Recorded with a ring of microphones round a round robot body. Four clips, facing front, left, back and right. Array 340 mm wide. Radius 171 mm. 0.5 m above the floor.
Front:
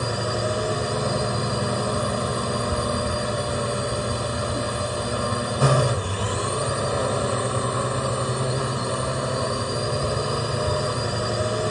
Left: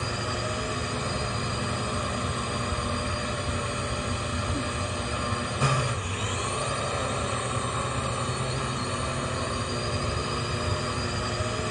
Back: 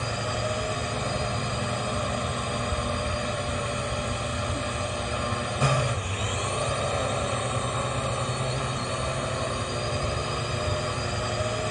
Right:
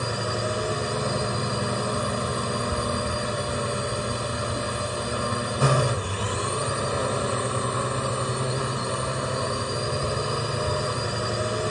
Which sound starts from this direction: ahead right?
A drone, at 0.0 s.